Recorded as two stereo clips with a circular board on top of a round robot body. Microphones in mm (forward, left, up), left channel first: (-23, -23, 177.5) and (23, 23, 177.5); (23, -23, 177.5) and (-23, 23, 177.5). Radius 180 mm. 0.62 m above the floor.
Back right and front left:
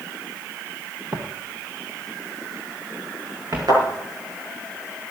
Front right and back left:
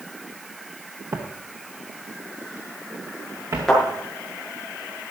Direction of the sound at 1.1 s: 90° left.